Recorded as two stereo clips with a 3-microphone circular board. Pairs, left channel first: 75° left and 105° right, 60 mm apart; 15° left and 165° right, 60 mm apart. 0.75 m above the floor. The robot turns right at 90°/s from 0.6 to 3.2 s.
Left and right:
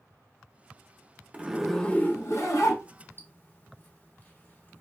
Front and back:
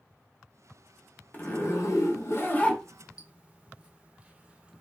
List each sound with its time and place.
1.3 s a zipper: 40° right, 0.6 m; by 4.8 s 125° left, 0.6 m